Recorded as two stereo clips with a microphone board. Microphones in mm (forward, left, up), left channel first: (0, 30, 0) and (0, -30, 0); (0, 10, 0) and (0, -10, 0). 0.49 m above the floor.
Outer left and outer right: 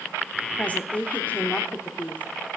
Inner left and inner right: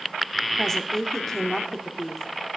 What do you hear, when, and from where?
0.6 s a woman speaking: 25° left (ahead or behind), 1.1 m